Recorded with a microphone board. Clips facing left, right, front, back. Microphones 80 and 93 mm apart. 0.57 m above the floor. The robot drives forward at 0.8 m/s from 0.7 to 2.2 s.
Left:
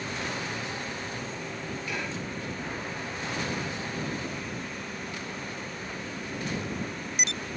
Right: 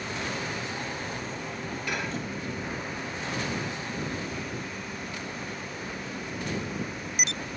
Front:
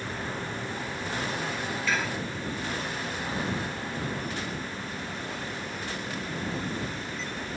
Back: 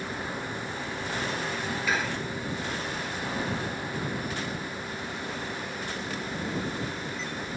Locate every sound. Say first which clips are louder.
1.9 s dishes clattering: right 4 dB, even; 100° right, 6.5 m; by 2.2 s 105° right, 6.5 m